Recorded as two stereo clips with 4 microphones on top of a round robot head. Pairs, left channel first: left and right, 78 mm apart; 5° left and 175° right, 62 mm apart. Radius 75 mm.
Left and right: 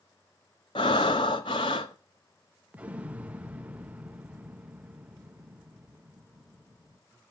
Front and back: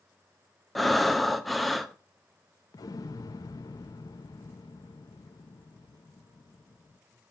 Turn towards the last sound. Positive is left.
turn(degrees=-15)